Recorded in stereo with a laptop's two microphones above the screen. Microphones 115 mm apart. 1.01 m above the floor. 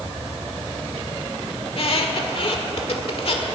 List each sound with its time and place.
1.6 s a squeak: 55° left (ahead or behind), 1.7 m